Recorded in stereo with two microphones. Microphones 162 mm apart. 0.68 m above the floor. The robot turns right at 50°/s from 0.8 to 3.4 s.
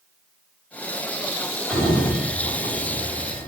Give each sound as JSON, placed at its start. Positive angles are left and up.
{"t": 1.7, "sound": "a sliding door", "side_deg": -5, "distance_m": 3.5}